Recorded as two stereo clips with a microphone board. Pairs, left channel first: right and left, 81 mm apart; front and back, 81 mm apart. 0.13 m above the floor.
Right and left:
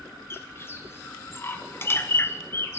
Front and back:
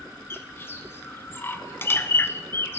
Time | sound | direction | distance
0.3 | a bird | 50° right | 0.9 m